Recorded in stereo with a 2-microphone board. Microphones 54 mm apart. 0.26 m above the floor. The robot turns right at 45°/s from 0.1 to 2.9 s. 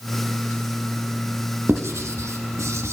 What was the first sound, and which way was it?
Writing, 50° right (ahead or behind).